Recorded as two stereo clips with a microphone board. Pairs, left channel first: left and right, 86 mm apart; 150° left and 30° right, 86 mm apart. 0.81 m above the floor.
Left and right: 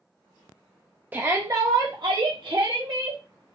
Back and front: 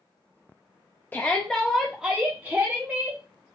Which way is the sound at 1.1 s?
150° right.